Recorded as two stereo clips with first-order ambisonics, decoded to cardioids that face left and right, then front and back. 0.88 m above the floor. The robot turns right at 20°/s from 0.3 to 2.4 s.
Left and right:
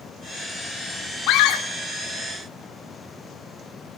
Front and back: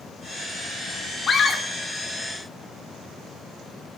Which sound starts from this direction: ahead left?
A scream, at 1.3 s.